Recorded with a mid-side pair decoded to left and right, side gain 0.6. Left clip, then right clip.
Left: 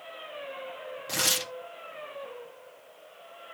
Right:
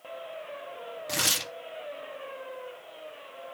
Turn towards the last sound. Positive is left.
turn(degrees=-5)